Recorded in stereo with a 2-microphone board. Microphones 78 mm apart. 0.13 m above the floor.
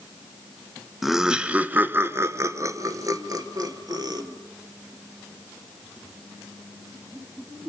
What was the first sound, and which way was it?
Laughter, centre (ahead or behind).